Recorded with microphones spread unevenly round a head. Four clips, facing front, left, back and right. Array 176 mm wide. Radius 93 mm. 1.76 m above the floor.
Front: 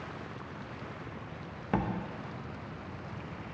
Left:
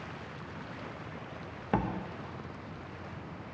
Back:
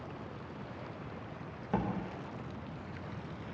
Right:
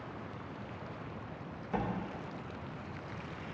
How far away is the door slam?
About 0.8 m.